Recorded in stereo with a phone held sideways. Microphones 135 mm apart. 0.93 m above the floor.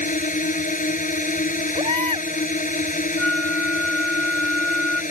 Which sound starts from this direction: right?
A baby crying, at 1.8 s.